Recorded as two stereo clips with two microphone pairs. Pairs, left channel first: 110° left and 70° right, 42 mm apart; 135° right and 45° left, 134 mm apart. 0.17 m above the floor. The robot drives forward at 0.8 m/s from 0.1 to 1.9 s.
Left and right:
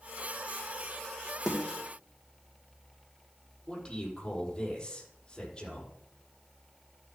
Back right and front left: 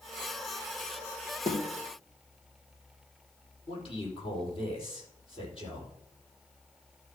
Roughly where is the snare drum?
Behind right.